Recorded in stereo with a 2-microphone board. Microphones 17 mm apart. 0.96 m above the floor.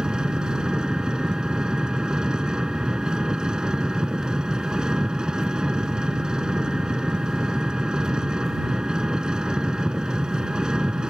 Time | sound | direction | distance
0.0 | an engine running | 55° right (ahead or behind) | ?